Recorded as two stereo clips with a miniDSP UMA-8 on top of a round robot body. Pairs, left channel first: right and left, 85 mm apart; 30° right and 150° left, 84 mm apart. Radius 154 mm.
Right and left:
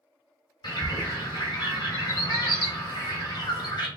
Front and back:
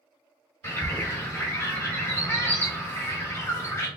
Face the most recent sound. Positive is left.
turn(degrees=-85)